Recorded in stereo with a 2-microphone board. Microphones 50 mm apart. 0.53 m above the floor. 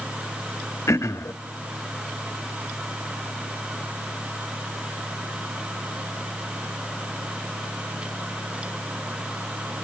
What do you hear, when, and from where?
0.9 s throat clearing: 80° left, 0.6 m